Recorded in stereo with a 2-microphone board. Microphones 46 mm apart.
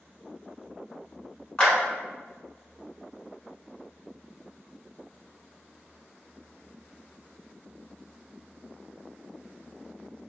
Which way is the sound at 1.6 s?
20° left (ahead or behind).